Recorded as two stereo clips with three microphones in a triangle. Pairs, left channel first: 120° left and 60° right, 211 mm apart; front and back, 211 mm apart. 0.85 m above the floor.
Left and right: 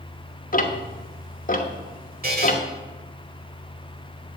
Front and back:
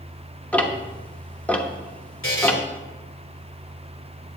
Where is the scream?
I don't hear a scream.